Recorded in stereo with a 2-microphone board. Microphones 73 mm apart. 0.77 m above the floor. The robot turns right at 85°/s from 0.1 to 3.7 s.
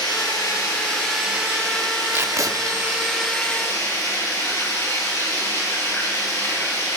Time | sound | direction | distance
0.0 | running water | 90° left | 9 m
2.1 | tape being pulled | 150° right | 1.2 m